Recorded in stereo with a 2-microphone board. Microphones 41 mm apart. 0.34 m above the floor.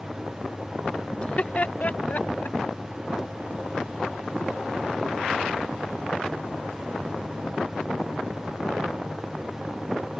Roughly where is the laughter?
Left.